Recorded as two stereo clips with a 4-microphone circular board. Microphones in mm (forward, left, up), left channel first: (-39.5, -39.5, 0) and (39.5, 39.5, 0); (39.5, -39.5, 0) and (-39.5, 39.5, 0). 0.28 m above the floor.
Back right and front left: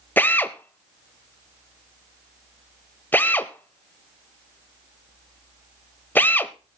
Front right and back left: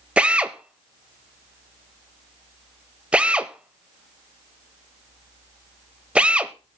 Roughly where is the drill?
Behind.